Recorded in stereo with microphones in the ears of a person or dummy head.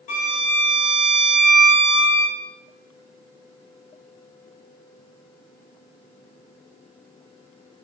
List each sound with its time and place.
0.1 s a violin: 30° left (ahead or behind), 0.7 m